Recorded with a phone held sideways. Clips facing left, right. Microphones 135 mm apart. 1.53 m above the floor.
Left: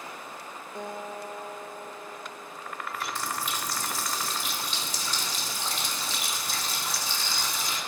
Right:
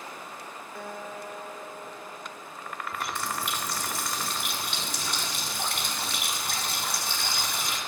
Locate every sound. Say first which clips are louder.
0.8 s a guitar: left 2 dB; 20° left (ahead or behind), 2 m
2.9 s a running tap: right 1 dB; 60° right (ahead or behind), 4 m